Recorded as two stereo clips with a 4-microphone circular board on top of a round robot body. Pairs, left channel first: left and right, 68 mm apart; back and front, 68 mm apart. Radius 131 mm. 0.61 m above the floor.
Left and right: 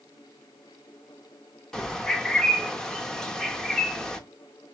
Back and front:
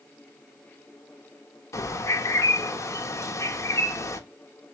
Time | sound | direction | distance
1.7 | a bird | 170° left | 1.1 m